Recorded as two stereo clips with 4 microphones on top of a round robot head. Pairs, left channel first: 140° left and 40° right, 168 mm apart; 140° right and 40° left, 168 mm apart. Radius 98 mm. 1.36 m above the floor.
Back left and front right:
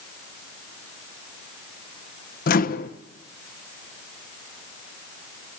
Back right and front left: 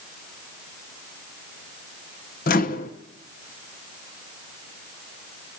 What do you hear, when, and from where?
2.5 s a microwave: straight behind, 1.1 m